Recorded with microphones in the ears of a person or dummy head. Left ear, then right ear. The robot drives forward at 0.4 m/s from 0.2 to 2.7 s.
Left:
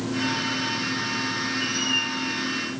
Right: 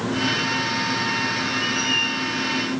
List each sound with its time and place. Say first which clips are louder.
1.6 s a squeak: right 3 dB; 25° left (ahead or behind), 2.5 m